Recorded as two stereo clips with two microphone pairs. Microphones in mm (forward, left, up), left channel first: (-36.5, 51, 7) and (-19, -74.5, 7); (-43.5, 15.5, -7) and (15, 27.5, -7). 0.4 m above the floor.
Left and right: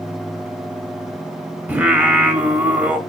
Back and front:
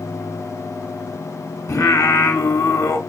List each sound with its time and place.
1.7 s singing: 160° right, 0.8 m